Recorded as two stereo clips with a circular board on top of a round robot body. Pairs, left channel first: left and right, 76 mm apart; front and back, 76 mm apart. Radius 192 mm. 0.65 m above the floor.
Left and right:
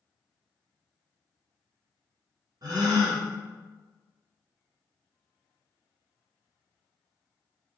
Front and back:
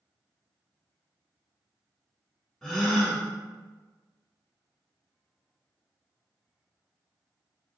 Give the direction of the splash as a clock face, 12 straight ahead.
I don't hear a splash.